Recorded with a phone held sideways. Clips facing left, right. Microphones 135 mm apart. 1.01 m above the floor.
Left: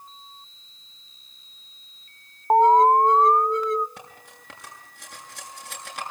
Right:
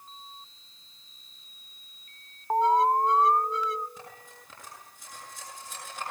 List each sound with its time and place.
2.5 s an alarm: 50° left (ahead or behind), 0.6 m
4.0 s cutlery clinking: 70° left (ahead or behind), 8 m